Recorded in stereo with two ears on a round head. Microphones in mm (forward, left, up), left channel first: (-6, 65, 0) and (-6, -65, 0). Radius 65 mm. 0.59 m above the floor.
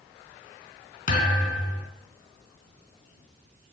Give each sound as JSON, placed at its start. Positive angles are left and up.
{"t": 1.1, "sound": "a thud", "side_deg": 55, "distance_m": 3.0}